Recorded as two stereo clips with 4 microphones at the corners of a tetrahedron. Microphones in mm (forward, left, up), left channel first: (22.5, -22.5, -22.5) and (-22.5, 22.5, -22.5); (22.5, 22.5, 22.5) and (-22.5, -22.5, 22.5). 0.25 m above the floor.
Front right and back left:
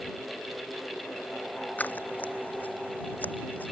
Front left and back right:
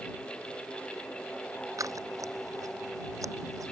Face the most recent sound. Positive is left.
turn(degrees=-105)